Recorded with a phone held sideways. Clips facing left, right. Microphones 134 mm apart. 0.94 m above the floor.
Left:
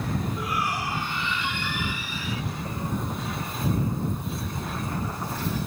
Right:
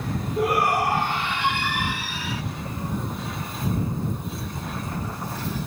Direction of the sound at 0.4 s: 60° right (ahead or behind).